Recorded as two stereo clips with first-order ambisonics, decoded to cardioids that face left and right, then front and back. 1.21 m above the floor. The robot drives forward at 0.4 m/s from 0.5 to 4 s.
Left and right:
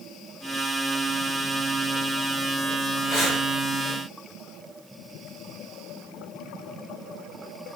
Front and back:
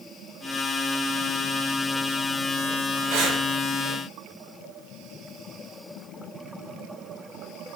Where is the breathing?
165° right, 5.5 m.